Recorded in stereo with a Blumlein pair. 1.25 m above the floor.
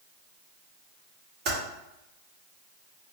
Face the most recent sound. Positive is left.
turn(degrees=-40)